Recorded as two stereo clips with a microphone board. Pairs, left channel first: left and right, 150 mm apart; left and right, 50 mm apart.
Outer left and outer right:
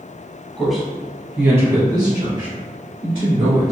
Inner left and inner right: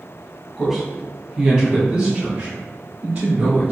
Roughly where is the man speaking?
Centre.